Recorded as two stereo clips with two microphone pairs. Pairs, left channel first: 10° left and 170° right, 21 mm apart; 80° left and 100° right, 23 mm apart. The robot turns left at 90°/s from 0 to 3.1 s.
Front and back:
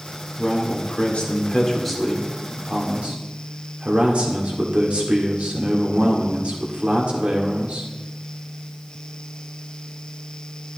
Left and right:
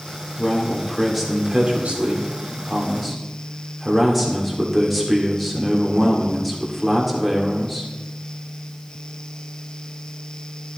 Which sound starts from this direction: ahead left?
A man speaking, at 0.4 s.